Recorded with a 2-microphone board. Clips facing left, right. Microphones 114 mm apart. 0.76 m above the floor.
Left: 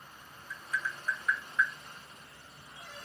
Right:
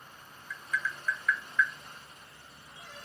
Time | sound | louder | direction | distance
0.5 | tapping | right 2 dB | 35° left (ahead or behind) | 0.7 m